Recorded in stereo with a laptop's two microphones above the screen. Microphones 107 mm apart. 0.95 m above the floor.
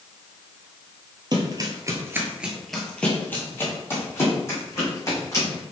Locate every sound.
1.3 s running footsteps: 40° right (ahead or behind), 1.4 m; by 5.6 s 30° left (ahead or behind), 4 m